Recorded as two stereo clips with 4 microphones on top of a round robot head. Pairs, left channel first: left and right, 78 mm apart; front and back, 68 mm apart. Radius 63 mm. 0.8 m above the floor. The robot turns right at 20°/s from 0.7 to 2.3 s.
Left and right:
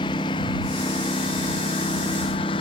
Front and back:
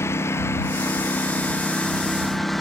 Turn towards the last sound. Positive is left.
turn(degrees=90)